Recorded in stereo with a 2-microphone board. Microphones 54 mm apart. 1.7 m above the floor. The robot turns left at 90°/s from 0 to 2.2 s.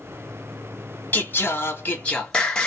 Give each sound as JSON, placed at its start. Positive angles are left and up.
{"t": 1.1, "sound": "singing", "azimuth_deg": 120, "distance_m": 1.1}